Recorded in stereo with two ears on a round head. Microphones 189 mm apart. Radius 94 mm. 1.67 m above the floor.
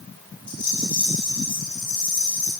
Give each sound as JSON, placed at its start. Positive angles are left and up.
{"t": 0.5, "sound": "a rattle", "side_deg": 40, "distance_m": 7.5}